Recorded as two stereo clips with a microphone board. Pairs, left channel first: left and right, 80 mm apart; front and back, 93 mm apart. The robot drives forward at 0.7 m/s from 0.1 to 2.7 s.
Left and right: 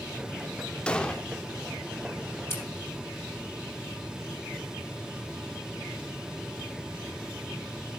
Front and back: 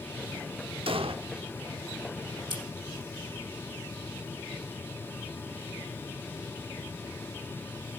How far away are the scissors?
About 4.5 m.